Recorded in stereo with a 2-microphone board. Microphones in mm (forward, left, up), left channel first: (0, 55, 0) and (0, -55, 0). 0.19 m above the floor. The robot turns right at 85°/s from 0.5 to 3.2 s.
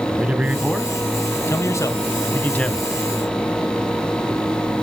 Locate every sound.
0.1 s a man speaking: 10° right (ahead or behind), 1.0 m; by 2.9 s centre (ahead or behind), 1.0 m